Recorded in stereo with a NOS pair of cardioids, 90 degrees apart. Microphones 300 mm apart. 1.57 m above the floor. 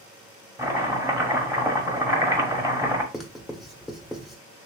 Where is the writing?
Straight ahead, 1.2 m.